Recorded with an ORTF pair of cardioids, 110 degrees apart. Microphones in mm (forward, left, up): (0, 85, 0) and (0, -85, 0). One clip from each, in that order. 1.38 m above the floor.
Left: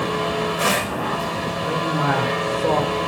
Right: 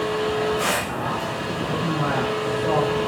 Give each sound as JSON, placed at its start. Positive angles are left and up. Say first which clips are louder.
{"t": 0.0, "sound": "a machine running", "louder": "even", "azimuth_deg": 30, "distance_m": 1.1}
{"t": 1.6, "sound": "a man speaking", "louder": "left 4 dB", "azimuth_deg": 60, "distance_m": 1.6}